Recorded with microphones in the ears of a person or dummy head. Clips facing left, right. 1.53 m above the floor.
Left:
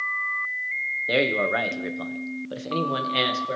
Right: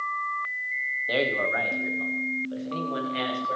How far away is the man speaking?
About 1.1 m.